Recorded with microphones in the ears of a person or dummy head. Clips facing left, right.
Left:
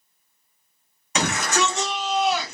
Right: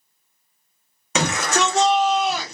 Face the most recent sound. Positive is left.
turn(degrees=-35)  # may be behind; listen again after turning